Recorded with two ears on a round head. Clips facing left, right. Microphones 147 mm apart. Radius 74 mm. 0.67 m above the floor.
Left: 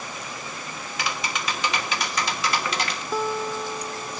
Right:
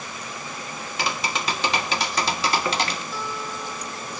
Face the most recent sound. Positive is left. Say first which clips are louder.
# left 6 dB
turn(degrees=40)  # may be behind; listen again after turning